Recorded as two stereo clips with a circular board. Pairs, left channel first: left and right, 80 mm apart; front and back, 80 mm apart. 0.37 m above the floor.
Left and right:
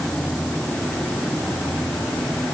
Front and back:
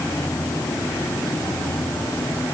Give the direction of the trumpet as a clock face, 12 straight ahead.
I don't hear a trumpet.